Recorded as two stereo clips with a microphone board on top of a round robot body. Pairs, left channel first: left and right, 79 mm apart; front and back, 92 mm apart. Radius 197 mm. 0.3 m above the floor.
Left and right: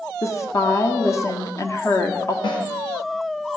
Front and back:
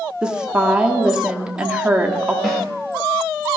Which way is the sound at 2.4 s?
85° left.